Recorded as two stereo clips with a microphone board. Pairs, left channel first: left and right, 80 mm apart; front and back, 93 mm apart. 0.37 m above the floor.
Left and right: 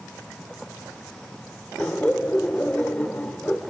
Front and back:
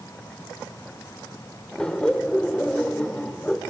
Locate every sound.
1.8 s laughter: 60° left, 1.1 m